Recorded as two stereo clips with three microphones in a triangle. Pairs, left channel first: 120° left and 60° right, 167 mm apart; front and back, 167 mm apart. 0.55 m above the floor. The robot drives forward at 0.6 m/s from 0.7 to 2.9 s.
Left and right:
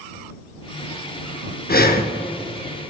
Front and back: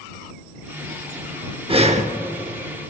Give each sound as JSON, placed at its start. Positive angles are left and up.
{"t": 1.7, "sound": "breathing", "azimuth_deg": 125, "distance_m": 0.6}